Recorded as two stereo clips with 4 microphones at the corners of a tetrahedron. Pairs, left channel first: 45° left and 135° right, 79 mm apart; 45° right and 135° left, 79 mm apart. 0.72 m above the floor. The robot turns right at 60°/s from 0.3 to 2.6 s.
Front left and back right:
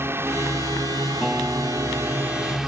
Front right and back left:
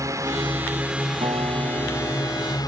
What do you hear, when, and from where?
0.0 s a drone: 170° left; by 2.7 s 50° right
1.2 s a guitar: 140° left; by 2.6 s 140° right